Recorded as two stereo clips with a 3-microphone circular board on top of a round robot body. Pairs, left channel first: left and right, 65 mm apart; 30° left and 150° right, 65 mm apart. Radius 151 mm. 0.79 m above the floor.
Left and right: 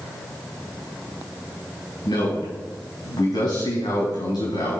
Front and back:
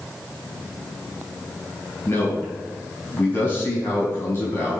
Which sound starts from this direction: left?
A man speaking, at 2.0 s.